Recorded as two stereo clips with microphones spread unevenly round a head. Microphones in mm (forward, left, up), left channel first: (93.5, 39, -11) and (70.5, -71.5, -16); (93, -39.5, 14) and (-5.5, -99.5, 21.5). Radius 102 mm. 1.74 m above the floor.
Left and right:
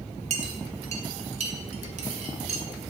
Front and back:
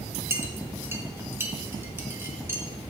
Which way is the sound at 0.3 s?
80° right.